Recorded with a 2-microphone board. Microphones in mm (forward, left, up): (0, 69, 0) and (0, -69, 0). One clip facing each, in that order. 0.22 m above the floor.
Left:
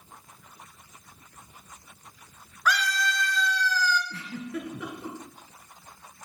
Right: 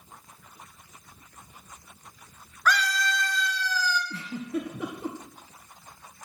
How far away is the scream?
About 2.5 m.